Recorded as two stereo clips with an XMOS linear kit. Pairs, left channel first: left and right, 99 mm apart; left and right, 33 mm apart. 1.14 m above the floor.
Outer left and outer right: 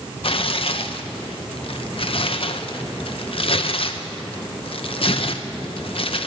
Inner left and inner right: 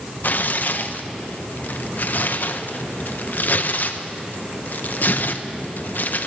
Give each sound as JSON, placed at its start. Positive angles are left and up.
{"t": 0.2, "sound": "tearing paper", "side_deg": 60, "distance_m": 0.7}